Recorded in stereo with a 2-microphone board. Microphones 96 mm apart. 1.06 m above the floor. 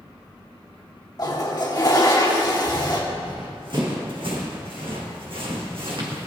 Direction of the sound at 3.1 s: 55° right (ahead or behind).